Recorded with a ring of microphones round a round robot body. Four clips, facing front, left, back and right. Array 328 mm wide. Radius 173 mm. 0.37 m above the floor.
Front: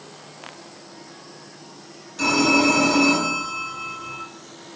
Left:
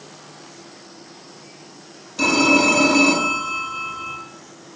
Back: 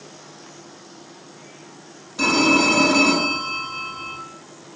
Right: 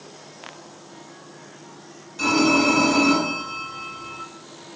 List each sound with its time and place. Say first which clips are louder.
2.2 s a phone ringing: left 2 dB, back 1 dB; 120° left, 1.0 m